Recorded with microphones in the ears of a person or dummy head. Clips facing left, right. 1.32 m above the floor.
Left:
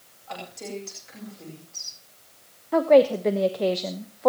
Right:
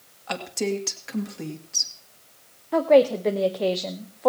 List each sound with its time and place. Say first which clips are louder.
0.3 s a woman speaking: right 9 dB; 75° right (ahead or behind), 2.5 m
2.7 s a woman speaking: even; centre (ahead or behind), 0.8 m